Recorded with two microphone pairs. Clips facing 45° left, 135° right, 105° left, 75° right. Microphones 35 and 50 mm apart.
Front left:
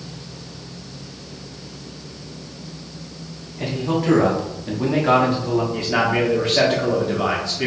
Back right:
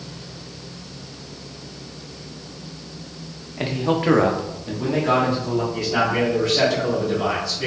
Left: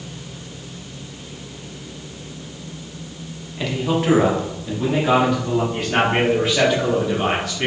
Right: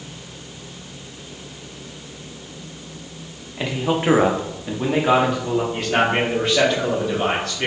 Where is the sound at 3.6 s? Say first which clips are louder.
Back right 1 dB, even; 140° right, 1.2 m; by 5.6 s straight ahead, 1.7 m.